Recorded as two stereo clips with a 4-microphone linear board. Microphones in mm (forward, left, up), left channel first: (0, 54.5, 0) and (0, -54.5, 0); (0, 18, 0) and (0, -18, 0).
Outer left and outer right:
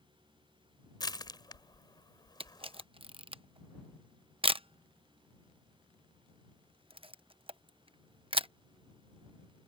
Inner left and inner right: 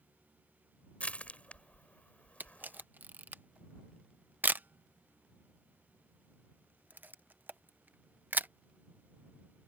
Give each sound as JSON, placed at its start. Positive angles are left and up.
{"t": 1.0, "sound": "crushing", "side_deg": 40}
{"t": 2.4, "sound": "a camera shutter", "side_deg": -55}